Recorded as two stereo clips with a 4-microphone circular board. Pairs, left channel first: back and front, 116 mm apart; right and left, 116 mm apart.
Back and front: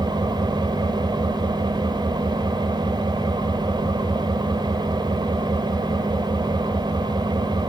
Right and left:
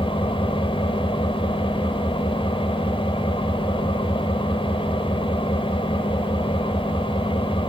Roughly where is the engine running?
Ahead right.